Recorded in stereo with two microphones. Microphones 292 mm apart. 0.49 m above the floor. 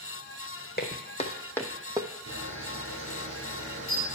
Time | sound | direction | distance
0.8 | footsteps | 35° left (ahead or behind) | 1.3 m
2.3 | a camera shutter | 65° right (ahead or behind) | 3 m